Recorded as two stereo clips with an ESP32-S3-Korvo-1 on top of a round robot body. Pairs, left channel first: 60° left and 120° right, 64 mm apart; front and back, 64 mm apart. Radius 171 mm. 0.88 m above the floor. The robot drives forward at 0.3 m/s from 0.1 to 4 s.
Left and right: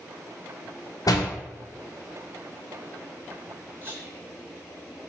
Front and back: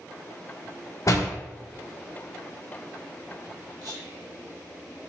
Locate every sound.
1.1 s a door slam: 40° left, 0.6 m
3.8 s whispering: 175° right, 1.6 m